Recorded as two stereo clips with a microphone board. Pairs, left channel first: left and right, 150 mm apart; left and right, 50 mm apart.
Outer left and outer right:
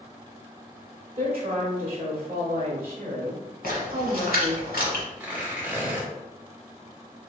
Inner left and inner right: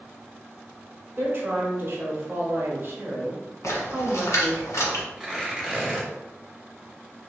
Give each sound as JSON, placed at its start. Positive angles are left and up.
{"t": 1.2, "sound": "a woman speaking", "side_deg": -40, "distance_m": 1.2}
{"t": 3.6, "sound": "a splash", "side_deg": 80, "distance_m": 1.3}
{"t": 5.2, "sound": "tearing paper", "side_deg": -10, "distance_m": 1.3}